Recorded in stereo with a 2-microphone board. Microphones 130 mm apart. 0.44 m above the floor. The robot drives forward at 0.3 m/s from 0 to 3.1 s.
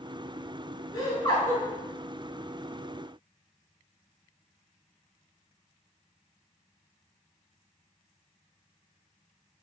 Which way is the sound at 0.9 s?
35° left (ahead or behind).